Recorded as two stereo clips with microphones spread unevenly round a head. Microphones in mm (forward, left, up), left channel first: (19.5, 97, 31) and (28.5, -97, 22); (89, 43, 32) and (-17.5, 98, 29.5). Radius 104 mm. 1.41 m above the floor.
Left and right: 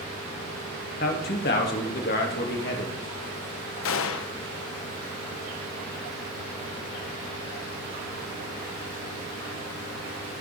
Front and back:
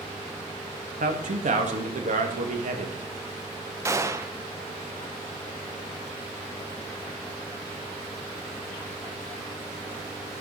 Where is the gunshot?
90° left, 0.9 m.